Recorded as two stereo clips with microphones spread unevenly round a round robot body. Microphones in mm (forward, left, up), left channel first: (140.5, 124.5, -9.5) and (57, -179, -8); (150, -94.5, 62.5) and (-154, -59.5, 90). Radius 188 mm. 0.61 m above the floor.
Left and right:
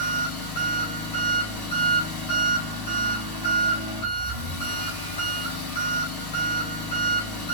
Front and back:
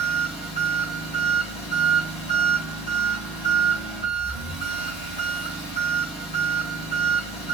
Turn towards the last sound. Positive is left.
turn(degrees=75)